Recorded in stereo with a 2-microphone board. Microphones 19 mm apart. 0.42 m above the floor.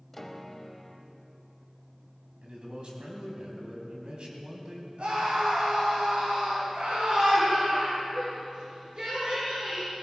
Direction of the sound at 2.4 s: 55° right (ahead or behind).